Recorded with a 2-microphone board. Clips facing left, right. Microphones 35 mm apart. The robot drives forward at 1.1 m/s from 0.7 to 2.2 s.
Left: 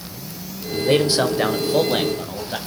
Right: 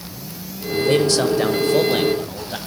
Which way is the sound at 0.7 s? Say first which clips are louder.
Right 1 dB; 25° left (ahead or behind).